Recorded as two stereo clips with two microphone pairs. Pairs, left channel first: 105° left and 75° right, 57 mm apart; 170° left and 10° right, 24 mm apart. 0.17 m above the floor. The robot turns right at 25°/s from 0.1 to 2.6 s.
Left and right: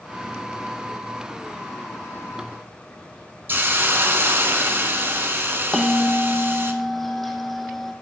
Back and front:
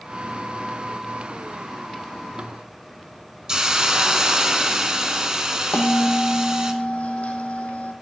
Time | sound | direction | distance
3.5 | a hiss | 55° right | 1.0 m
5.7 | a bell | 170° right | 1.1 m